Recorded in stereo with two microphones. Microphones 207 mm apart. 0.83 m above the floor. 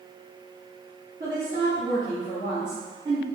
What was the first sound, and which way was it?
A woman speaking, 35° right (ahead or behind).